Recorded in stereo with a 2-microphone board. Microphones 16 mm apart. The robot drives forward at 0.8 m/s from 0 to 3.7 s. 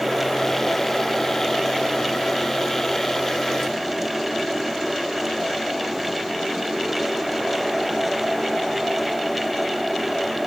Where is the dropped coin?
No dropped coin in this recording.